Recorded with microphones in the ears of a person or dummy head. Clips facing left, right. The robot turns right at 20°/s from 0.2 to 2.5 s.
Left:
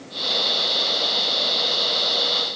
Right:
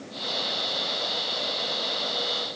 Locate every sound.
Only background noise.